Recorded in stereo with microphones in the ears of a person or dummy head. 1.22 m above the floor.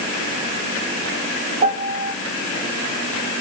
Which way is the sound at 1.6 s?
35° right (ahead or behind).